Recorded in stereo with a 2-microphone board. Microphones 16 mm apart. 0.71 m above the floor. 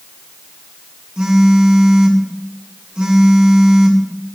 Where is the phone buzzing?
65° right (ahead or behind), 2 m.